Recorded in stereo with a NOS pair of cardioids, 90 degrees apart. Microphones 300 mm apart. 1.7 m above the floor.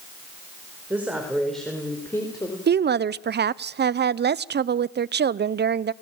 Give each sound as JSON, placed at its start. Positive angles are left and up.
{"t": 0.9, "sound": "a woman speaking", "azimuth_deg": -5, "distance_m": 5.5}
{"t": 2.7, "sound": "a woman speaking", "azimuth_deg": -35, "distance_m": 0.8}